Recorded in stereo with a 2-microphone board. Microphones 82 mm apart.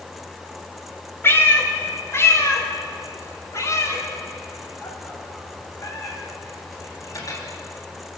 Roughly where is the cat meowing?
Left.